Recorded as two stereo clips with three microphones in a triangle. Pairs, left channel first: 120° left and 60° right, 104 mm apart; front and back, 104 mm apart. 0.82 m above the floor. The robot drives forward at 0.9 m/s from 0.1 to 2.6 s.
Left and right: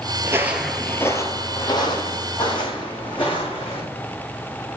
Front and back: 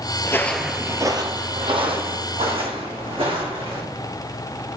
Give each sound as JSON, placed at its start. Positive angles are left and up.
{"t": 0.2, "sound": "footsteps", "azimuth_deg": -30, "distance_m": 0.9}